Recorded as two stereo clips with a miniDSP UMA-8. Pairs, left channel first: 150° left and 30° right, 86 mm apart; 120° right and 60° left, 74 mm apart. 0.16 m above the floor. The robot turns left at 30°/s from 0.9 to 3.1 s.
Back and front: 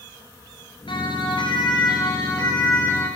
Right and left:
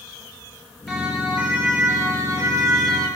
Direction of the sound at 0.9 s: 150° left.